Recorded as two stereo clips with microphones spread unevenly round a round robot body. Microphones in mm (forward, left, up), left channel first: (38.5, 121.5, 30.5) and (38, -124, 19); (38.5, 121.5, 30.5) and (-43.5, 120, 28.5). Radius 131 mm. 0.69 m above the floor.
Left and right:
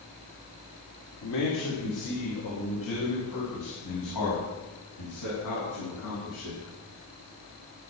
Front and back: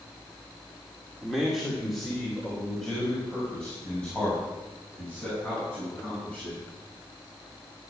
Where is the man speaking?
95° left, 2.5 m; by 6.6 s 80° left, 9.5 m.